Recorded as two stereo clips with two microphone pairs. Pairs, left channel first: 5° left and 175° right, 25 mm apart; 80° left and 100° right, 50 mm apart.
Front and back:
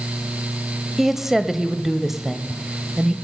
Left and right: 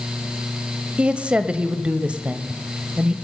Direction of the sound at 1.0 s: 115° right.